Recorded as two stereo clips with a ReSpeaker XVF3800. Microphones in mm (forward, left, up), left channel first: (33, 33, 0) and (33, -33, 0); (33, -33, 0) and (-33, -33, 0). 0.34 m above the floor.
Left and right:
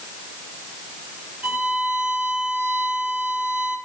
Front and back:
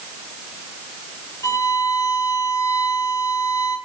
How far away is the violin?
About 4.5 m.